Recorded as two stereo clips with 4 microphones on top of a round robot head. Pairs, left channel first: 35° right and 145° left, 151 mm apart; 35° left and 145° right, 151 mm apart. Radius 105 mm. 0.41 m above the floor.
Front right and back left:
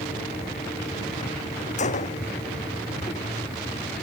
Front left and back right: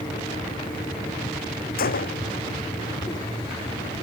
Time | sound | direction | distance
1.8 | a gunshot | 10° left | ?